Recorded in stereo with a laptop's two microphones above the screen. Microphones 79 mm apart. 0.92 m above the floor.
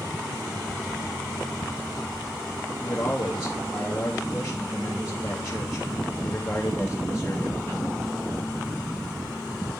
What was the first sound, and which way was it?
A man speaking, 30° left (ahead or behind).